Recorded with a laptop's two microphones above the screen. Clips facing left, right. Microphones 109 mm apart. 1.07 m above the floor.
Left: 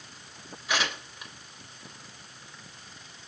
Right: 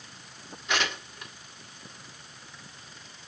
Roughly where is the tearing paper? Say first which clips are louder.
Even; centre.